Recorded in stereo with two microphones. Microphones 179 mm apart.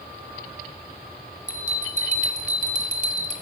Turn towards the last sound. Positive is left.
turn(degrees=-45)  # may be behind; listen again after turning